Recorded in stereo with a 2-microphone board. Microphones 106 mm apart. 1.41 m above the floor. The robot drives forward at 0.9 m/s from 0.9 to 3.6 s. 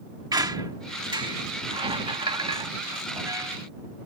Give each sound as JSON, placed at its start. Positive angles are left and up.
{"t": 0.3, "sound": "a squeak", "side_deg": -40}